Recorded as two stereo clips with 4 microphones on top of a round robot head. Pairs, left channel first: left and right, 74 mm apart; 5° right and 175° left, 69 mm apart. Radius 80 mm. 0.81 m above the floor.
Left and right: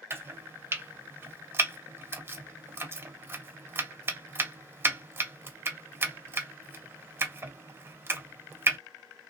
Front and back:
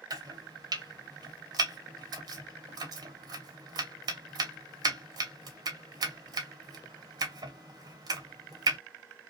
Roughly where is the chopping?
Behind right.